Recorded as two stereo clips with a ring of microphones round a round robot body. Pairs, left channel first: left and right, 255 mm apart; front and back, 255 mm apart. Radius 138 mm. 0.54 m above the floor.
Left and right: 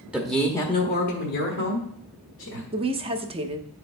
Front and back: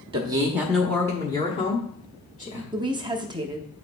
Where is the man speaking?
165° right, 1.0 m; by 2.6 s 55° left, 2 m.